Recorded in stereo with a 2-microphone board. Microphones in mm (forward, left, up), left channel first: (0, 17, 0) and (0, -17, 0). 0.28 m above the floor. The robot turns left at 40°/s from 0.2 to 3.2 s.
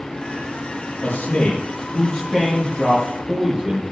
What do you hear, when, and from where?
1.0 s a man speaking: 90° left, 4 m; by 3.8 s straight ahead, 4 m